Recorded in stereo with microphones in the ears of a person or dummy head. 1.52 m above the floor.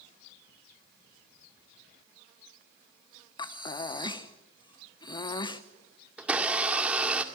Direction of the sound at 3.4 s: 30° left (ahead or behind).